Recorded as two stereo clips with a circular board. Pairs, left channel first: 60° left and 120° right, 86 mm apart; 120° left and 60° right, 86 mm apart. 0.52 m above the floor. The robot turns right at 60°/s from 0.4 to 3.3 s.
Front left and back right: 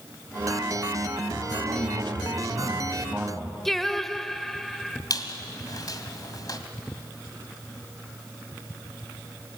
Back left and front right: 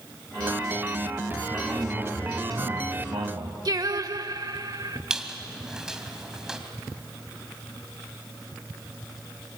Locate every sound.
1.5 s a man speaking: 150° right, 3.5 m; by 3.5 s 45° right, 3.5 m
3.6 s singing: 25° right, 0.9 m
5.1 s a squeak: 20° left, 2 m